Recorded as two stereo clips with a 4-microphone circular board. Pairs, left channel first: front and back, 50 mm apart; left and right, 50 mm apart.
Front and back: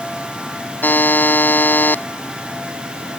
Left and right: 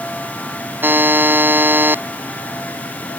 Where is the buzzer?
50° right.